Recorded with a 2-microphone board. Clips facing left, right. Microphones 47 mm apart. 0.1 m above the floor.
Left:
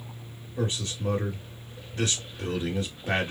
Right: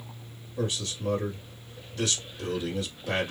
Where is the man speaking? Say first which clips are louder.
Left 1 dB; 40° left (ahead or behind), 1.8 m.